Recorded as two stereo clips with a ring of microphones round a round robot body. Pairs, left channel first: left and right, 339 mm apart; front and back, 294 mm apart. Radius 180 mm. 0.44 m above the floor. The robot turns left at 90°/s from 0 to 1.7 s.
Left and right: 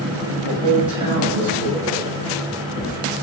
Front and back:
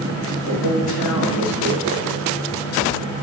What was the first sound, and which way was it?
A man speaking, 35° left.